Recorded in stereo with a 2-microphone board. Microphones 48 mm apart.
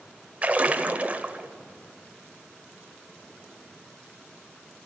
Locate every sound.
0.4 s a splash: 30° right (ahead or behind), 1.0 m